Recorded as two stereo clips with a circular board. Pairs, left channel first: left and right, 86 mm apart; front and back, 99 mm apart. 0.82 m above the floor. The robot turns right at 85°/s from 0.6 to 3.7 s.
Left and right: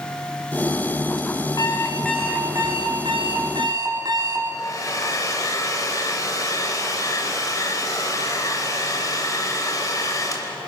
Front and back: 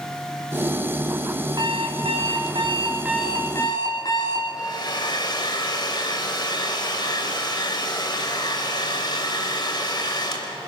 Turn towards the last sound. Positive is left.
turn(degrees=40)